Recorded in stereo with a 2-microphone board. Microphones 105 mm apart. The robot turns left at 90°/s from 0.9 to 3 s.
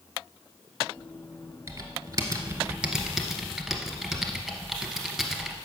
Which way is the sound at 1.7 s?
55° right.